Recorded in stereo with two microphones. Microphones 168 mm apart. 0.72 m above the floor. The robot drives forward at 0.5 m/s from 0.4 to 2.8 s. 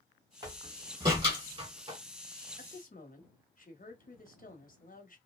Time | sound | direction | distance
0.4 | a door slam | 25° right (ahead or behind) | 2.5 m
2.6 | a woman speaking | 55° left (ahead or behind) | 1.0 m